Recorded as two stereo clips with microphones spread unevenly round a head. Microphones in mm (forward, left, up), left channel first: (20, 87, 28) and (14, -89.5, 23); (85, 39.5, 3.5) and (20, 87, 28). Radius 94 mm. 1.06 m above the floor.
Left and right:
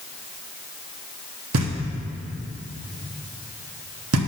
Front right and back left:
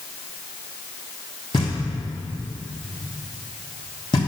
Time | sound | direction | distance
1.5 | knocking | 100° right | 1.2 m